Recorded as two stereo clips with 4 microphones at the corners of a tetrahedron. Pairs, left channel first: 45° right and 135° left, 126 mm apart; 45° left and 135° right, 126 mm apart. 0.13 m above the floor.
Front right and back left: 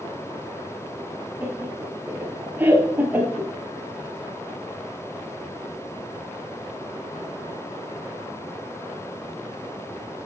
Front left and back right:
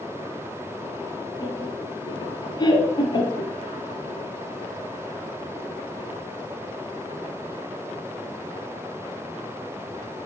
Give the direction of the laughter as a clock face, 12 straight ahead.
10 o'clock.